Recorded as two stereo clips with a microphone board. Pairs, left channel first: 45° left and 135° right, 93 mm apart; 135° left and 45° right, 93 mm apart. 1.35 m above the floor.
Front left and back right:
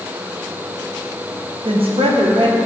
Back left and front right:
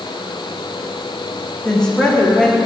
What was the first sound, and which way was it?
A woman speaking, 145° right.